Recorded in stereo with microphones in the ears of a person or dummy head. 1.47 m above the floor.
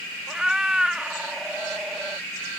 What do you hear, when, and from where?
0.3 s a cat meowing: 5° right (ahead or behind)